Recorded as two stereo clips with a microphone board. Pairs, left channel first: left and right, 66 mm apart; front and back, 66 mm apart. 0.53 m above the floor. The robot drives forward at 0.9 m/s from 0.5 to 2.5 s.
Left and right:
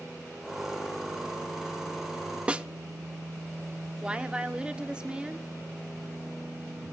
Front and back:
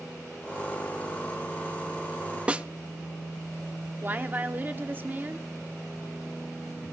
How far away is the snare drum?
About 0.6 m.